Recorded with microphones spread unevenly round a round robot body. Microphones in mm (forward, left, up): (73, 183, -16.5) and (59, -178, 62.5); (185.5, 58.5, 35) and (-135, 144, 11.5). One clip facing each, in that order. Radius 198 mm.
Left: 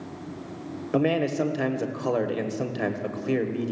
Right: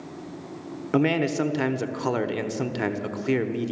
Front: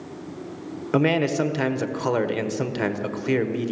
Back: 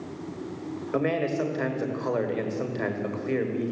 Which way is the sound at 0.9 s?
20° right.